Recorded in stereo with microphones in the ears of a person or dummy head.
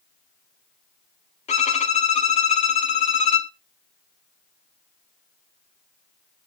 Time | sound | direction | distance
1.5 | a violin | 35° left (ahead or behind) | 0.9 m